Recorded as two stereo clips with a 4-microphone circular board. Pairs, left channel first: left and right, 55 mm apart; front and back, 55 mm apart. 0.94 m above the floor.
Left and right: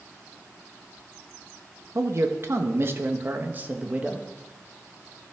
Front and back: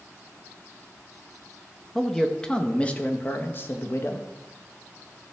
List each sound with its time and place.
1.9 s a man speaking: 80° right, 1.4 m; by 4.3 s 20° right, 1.4 m